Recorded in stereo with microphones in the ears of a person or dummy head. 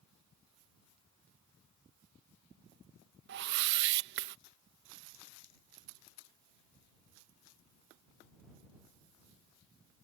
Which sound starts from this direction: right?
A whoosh, at 3.3 s.